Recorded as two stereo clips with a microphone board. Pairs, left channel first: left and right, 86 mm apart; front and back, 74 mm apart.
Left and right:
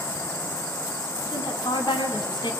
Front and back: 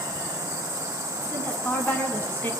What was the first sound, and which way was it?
A woman speaking, 65° left.